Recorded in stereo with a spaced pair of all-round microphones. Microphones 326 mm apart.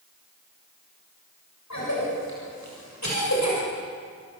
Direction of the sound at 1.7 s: 55° left (ahead or behind).